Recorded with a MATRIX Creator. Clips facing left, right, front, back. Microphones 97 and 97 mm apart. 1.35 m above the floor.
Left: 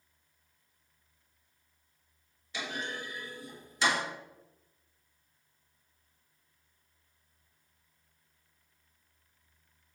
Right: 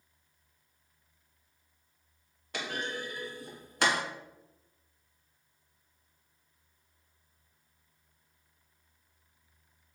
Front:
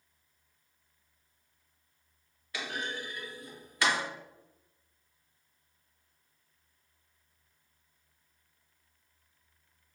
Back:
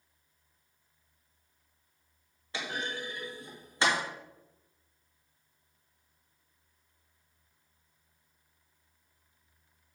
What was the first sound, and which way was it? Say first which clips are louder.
A clunk: right 2 dB, back 1 dB; 120° right.